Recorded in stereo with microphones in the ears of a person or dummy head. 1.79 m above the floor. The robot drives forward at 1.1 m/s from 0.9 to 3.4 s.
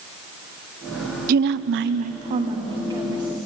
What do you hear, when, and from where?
1.3 s a woman speaking: 50° right (ahead or behind), 0.7 m; by 3.4 s 15° right (ahead or behind), 2 m